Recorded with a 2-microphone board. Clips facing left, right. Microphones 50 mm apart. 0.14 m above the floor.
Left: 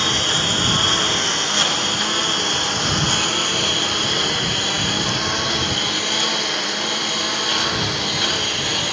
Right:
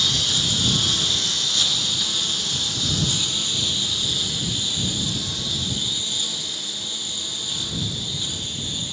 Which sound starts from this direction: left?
A lawn mower, at 0.0 s.